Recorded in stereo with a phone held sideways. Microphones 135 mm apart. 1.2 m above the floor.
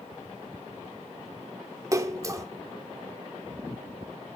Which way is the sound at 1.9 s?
25° right (ahead or behind).